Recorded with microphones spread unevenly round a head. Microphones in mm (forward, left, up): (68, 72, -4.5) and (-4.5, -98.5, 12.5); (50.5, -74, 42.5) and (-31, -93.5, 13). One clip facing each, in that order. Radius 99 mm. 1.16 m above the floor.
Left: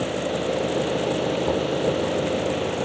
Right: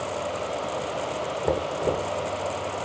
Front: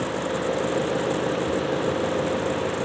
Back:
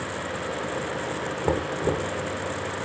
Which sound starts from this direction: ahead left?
An engine running, at 0.0 s.